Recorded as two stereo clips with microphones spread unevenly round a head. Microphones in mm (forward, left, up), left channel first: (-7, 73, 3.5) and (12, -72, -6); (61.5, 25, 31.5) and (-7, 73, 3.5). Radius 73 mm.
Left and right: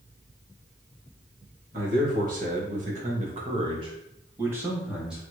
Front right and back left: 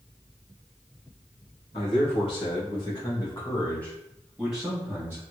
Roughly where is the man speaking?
Ahead right.